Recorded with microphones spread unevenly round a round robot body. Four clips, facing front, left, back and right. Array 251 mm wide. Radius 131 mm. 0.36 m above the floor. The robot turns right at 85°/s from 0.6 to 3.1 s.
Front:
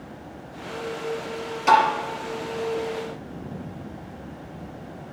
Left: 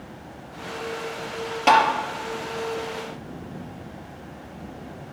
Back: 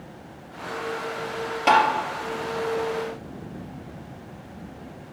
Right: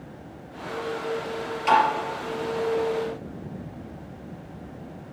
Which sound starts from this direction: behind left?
Tapping, at 1.7 s.